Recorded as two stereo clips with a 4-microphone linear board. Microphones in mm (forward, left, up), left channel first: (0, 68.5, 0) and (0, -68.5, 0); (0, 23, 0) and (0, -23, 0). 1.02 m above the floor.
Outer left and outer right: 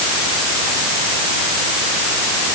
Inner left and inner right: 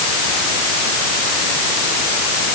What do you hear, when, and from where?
Only background noise.